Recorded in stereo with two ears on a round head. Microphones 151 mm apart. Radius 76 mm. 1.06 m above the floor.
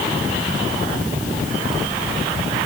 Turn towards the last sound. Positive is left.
No sound to turn to.